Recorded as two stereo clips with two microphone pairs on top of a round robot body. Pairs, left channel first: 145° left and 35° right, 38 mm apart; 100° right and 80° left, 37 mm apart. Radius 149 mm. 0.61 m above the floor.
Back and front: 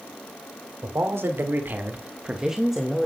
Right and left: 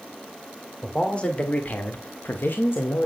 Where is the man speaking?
40° right, 2.5 m; by 3.1 s 130° right, 2.5 m.